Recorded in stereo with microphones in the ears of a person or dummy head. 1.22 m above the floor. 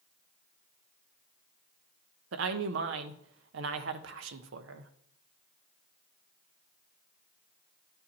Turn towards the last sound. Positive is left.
turn(degrees=-70)  # may be behind; listen again after turning